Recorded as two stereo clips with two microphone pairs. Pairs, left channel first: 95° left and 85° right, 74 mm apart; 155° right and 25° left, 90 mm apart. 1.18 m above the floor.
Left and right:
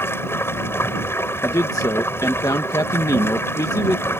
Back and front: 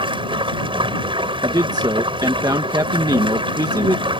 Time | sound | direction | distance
0.0 | running water | 40° left | ?
1.4 | a man speaking | 60° left | ?